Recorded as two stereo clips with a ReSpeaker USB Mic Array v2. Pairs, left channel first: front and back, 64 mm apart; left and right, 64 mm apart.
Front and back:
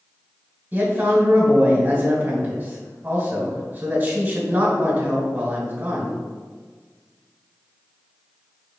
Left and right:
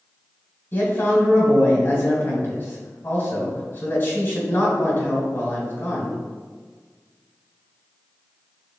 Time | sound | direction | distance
0.7 | a man speaking | 130° left | 1.5 m